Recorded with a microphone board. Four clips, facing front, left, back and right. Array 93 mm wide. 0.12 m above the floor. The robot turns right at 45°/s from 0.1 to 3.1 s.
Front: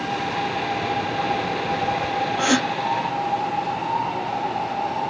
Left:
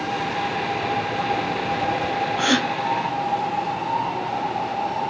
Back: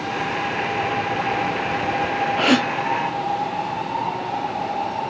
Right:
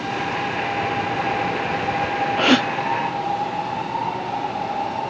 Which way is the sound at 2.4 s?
135° right.